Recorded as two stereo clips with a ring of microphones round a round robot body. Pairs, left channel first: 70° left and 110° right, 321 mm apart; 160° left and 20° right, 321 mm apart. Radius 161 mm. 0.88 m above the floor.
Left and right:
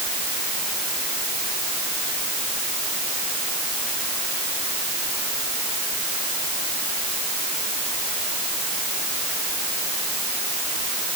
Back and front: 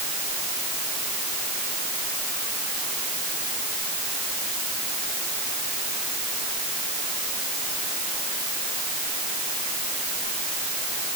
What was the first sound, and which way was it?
Only background noise.